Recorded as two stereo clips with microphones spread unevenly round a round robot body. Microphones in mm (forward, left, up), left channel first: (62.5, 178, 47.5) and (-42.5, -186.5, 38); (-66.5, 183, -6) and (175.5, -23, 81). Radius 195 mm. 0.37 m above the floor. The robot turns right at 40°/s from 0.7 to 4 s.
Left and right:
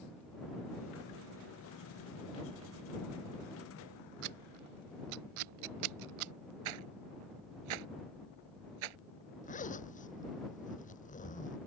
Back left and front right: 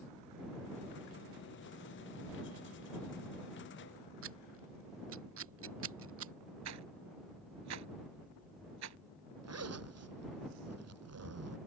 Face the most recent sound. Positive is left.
turn(degrees=0)